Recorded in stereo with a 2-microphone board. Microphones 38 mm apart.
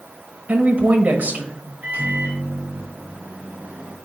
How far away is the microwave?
About 3.5 m.